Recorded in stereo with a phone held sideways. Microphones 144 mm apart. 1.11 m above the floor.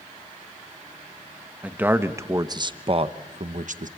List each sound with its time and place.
1.6 s a man speaking: 10° right (ahead or behind), 1.6 m; by 3.9 s 65° right (ahead or behind), 1.2 m